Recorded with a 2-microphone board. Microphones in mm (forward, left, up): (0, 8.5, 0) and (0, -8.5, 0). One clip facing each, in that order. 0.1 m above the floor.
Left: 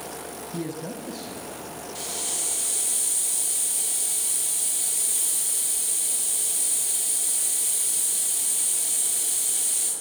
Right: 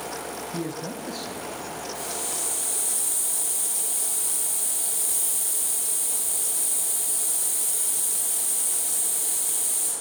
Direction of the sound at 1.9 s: 10° left (ahead or behind).